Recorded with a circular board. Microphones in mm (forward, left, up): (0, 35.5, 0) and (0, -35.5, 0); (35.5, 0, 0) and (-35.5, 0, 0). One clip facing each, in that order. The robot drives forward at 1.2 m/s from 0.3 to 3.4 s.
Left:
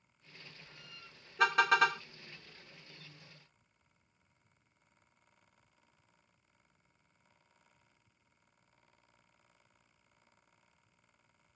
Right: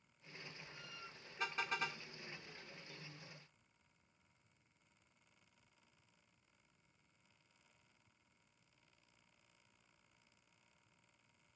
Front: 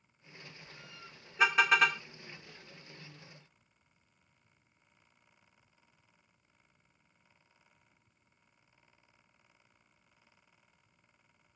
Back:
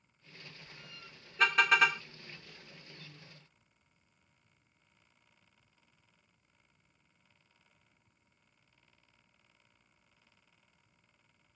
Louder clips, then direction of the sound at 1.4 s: Left 15 dB, even; 80° left.